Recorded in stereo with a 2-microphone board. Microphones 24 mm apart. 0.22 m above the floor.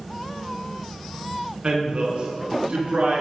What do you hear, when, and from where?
1.6 s a woman speaking: 45° right (ahead or behind), 1.8 m; by 3.2 s 65° right (ahead or behind), 2.5 m